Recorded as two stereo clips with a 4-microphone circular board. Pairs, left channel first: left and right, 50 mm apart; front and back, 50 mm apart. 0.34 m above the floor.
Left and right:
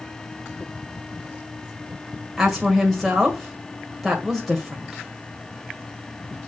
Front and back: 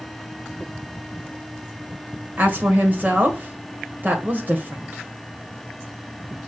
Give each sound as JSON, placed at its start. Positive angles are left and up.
{"t": 2.4, "sound": "a woman speaking", "azimuth_deg": 180, "distance_m": 1.6}